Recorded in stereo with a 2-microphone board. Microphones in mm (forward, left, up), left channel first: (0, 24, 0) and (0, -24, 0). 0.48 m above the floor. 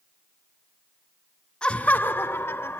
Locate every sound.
1.6 s laughter: 15° left (ahead or behind), 0.7 m; by 2.8 s 55° left (ahead or behind), 1.5 m